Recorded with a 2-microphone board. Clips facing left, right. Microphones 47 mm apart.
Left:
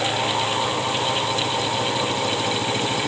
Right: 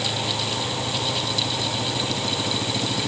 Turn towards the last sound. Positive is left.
No sound to turn to.